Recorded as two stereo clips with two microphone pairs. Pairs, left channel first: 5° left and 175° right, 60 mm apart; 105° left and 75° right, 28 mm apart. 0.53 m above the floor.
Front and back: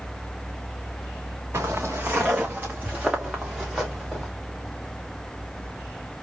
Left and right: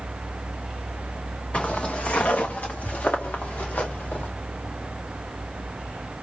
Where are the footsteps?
140° left, 3 m; by 4.3 s 100° left, 3 m.